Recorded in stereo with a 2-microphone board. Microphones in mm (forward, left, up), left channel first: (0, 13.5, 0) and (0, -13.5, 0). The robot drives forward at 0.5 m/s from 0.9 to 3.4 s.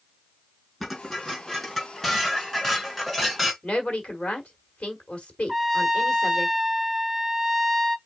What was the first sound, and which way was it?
Dishes clattering, 5° left (ahead or behind).